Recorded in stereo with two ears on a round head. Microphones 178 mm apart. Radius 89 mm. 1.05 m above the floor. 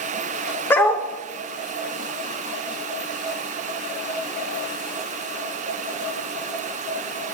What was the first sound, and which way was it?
A dog barking, 10° left (ahead or behind).